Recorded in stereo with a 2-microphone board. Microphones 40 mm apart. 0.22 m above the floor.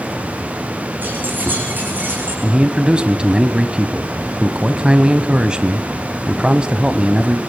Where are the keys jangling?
50° right (ahead or behind), 8.5 m; by 2.3 s 45° right (ahead or behind), 10.5 m.